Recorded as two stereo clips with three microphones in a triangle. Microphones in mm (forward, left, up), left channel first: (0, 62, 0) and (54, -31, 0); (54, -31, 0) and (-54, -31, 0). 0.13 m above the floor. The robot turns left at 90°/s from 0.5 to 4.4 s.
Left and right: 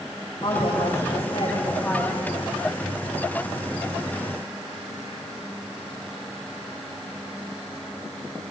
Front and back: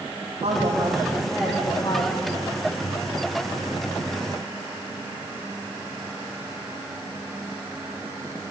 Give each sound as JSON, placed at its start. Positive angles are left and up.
{"t": 0.4, "sound": "a woman speaking", "azimuth_deg": 165, "distance_m": 9.0}